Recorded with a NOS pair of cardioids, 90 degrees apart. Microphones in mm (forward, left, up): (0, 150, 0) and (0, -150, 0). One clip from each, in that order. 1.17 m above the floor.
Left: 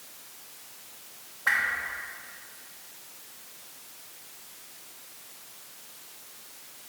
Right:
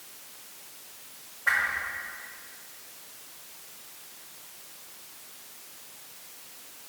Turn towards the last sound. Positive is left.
turn(degrees=30)